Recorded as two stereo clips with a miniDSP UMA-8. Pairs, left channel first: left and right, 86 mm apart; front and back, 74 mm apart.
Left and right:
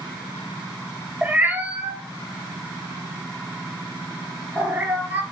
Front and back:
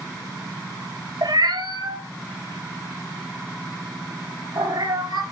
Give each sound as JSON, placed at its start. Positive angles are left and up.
{"t": 1.2, "sound": "a cat meowing", "azimuth_deg": -160, "distance_m": 1.1}